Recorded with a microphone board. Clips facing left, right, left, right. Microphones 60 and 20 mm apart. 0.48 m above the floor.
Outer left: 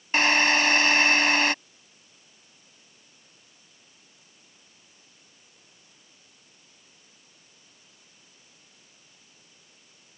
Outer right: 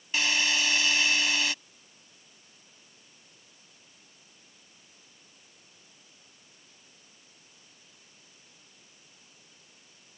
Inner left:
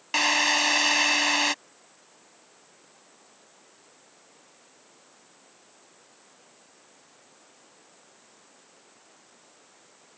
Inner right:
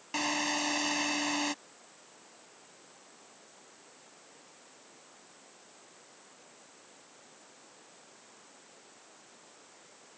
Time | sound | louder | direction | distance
0.1 | a drill | outer left 7 dB, inner left 9 dB | 50° left (ahead or behind) | ?